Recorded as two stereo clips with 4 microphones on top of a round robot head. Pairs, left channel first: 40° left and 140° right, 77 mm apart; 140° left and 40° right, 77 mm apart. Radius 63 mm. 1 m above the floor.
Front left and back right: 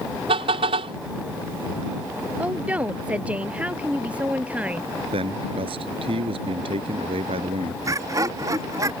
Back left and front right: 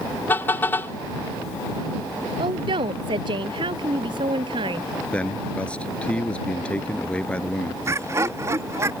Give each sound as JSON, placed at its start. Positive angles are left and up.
{"t": 0.3, "sound": "a car horn", "azimuth_deg": -150}
{"t": 2.4, "sound": "a woman speaking", "azimuth_deg": -65}
{"t": 5.1, "sound": "a man speaking", "azimuth_deg": -145}
{"t": 7.8, "sound": "laughter", "azimuth_deg": -95}